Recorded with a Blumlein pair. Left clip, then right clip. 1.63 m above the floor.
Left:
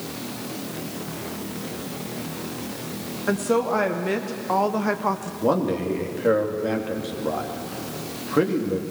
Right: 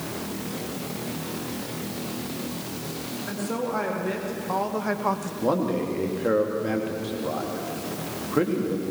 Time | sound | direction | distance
3.3 | a woman speaking | 25° left | 2.5 m
5.4 | a man speaking | 5° left | 3 m